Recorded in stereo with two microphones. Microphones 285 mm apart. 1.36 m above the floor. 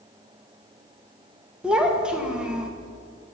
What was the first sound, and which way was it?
A child speaking, 5° right (ahead or behind).